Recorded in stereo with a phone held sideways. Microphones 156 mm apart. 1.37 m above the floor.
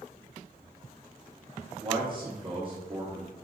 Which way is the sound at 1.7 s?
30° right (ahead or behind).